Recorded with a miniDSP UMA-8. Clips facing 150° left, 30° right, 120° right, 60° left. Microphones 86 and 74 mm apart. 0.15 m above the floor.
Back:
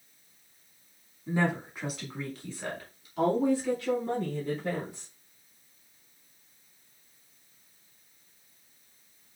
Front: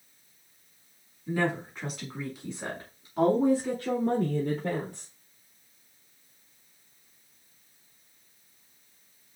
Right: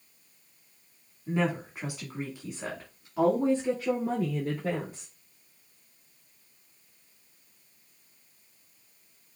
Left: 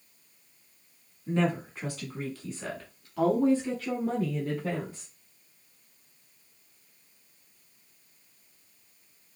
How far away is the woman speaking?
About 1.3 m.